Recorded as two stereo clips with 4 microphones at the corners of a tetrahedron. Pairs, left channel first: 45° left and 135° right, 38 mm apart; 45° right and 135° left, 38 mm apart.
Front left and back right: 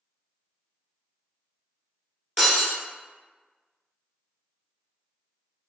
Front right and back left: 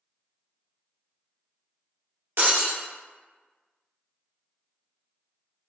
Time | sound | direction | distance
2.4 | breaking glass | 135° left | 2.0 m